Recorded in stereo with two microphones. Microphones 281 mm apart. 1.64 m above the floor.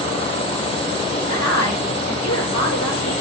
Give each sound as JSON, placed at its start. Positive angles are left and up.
{"t": 1.3, "sound": "a woman speaking", "side_deg": 75, "distance_m": 6.5}